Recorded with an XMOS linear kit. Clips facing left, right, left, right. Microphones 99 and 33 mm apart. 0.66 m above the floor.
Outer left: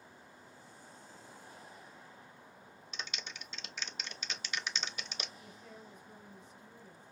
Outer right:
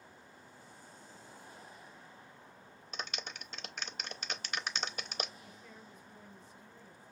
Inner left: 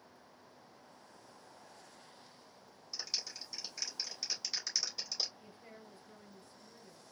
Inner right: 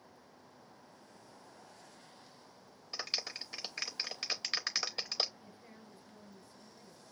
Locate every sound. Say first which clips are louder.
2.9 s a clap: outer right 3 dB, inner right 3 dB; 50° right (ahead or behind), 0.9 m
5.4 s a woman speaking: outer left 1 dB, inner left 1 dB; 70° left (ahead or behind), 3.5 m